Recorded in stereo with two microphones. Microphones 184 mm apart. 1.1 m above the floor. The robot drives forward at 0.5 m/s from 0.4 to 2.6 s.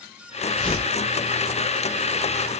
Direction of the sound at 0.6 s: 30° left (ahead or behind).